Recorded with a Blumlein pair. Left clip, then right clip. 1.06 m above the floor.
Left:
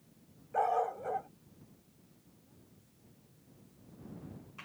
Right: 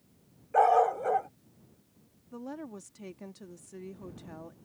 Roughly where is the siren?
No siren in this recording.